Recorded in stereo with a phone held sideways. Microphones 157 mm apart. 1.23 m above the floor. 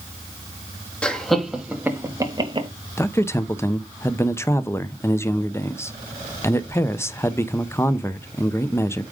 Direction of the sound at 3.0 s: 15° left (ahead or behind).